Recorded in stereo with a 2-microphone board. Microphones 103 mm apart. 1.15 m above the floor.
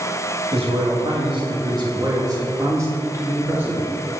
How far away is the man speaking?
About 2 m.